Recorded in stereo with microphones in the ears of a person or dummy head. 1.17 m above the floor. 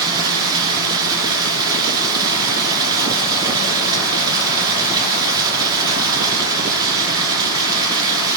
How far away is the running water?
About 2.5 m.